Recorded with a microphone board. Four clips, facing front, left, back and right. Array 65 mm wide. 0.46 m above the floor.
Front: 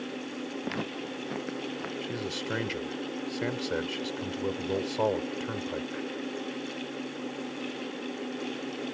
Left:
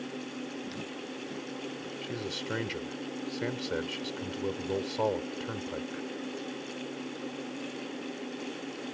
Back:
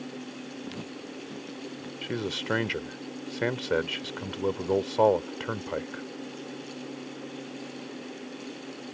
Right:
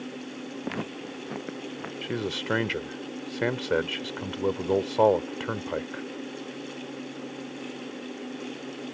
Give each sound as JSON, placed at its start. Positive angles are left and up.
{"t": 0.6, "sound": "footsteps", "azimuth_deg": -55}
{"t": 2.0, "sound": "a man speaking", "azimuth_deg": -120}